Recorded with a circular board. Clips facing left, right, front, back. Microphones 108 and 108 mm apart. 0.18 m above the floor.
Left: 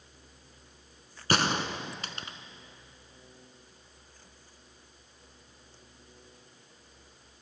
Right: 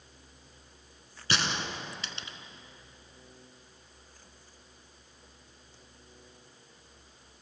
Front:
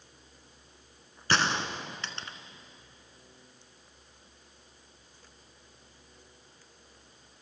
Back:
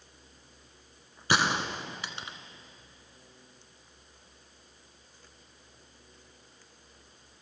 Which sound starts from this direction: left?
A gunshot, at 1.3 s.